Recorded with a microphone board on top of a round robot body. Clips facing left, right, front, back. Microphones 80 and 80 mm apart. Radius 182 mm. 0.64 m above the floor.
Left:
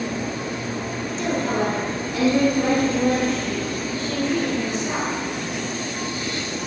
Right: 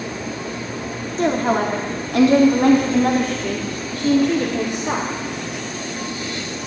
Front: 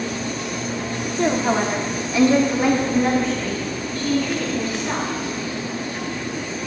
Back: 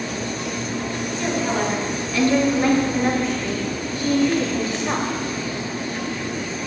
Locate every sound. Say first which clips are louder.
1.2 s a woman speaking: right 5 dB, front 4 dB; 50° right, 2.5 m; by 5.1 s 120° right, 3 m